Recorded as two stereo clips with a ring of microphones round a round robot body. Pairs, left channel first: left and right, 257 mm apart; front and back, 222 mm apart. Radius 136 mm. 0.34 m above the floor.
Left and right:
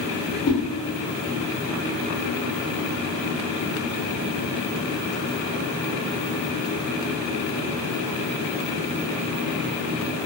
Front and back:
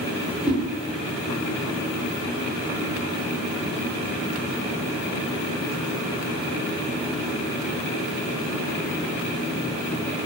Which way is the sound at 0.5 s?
95° left.